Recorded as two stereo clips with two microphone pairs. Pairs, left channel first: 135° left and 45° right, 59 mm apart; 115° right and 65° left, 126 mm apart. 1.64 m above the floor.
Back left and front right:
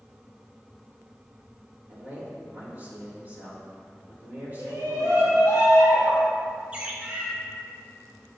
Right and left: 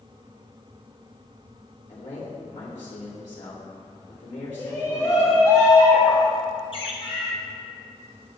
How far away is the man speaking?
About 3 m.